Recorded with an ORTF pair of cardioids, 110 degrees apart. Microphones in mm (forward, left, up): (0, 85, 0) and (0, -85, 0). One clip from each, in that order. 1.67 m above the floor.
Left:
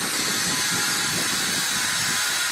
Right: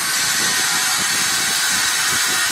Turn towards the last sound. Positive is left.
turn(degrees=-65)